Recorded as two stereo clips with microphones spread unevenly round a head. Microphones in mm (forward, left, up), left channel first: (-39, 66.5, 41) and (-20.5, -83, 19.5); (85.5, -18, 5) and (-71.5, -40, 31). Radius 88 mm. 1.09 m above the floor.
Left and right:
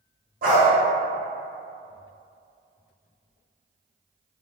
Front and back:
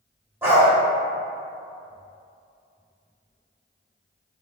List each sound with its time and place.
0.4 s a dog barking: 105° right, 1.2 m